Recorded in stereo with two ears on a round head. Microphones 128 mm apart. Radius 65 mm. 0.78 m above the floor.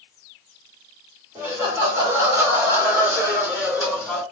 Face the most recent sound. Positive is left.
turn(degrees=-5)  # may be behind; listen again after turning